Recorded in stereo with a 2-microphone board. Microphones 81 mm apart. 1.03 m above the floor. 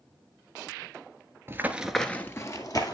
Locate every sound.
1.5 s running footsteps: 30° right (ahead or behind), 1.1 m; by 2.9 s 55° left (ahead or behind), 1.7 m